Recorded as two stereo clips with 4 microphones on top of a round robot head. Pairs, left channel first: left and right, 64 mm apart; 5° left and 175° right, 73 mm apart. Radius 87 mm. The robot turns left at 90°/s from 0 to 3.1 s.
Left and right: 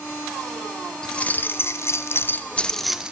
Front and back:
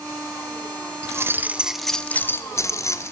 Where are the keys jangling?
165° left, 0.6 m; by 3.1 s 20° right, 0.6 m.